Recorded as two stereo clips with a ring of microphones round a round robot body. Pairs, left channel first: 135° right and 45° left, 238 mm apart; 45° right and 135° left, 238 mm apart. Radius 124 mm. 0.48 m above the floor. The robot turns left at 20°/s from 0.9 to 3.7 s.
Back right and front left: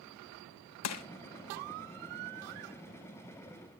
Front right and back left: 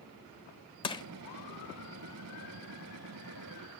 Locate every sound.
0.8 s crushing: 115° right, 0.8 m; by 1.1 s 120° right, 0.8 m